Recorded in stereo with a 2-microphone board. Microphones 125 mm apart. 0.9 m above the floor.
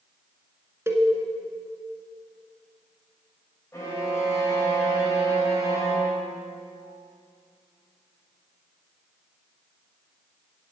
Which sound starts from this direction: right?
A cowbell, at 0.9 s.